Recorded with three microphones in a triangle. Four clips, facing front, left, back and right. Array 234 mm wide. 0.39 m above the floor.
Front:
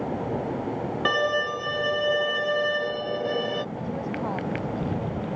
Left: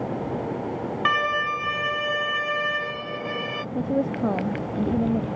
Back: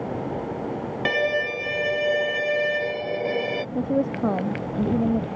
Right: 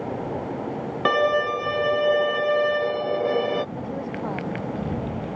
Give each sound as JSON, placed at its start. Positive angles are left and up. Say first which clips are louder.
{"t": 1.1, "sound": "a violin", "louder": "right 4 dB, back 1 dB", "azimuth_deg": -100}
{"t": 3.8, "sound": "a woman speaking", "louder": "left 6 dB, back 7 dB", "azimuth_deg": 150}